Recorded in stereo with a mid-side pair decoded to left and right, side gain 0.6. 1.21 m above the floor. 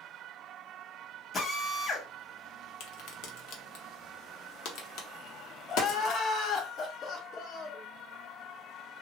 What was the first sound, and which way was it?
A drill, 35° left.